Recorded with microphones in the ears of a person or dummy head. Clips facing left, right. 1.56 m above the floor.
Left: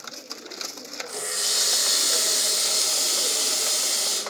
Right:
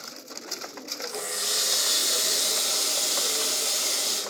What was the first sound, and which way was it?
A running tap, 15° left (ahead or behind).